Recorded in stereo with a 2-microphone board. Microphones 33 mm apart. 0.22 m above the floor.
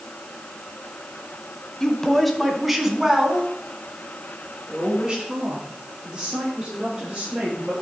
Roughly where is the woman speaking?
Centre.